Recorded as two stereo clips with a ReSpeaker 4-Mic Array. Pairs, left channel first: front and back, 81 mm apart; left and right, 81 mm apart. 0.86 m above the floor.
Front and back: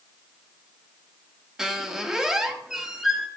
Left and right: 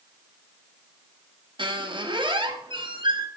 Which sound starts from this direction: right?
A squeak, at 1.6 s.